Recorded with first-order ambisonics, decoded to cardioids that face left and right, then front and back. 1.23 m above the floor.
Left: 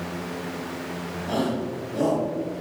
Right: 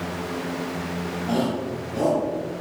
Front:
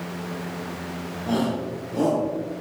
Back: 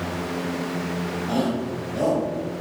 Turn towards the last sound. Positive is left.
turn(degrees=-30)